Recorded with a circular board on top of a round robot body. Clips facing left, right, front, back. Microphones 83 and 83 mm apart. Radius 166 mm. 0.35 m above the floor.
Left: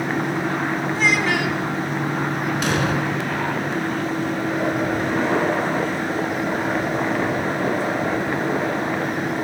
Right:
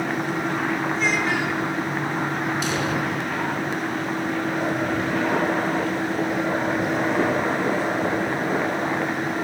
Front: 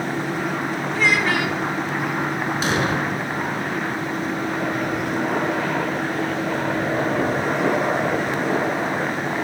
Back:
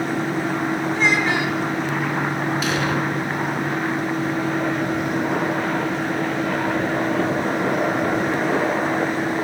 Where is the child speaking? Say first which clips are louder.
Left 3 dB, front 1 dB; 115° left, 3 m.